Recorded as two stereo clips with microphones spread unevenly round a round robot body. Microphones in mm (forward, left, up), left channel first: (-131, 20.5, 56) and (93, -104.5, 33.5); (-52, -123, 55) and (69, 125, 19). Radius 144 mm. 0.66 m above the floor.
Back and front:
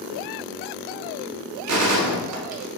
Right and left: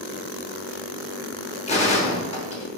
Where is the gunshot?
45° right, 1.0 m.